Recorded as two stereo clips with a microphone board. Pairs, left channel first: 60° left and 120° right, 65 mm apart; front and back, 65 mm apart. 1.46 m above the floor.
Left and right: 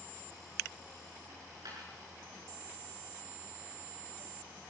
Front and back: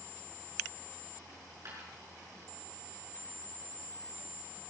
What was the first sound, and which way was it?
A dropped coin, 130° right.